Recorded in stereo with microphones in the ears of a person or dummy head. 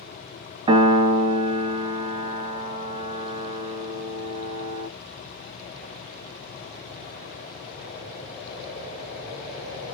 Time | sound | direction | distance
0.7 | a piano | 25° right (ahead or behind) | 0.5 m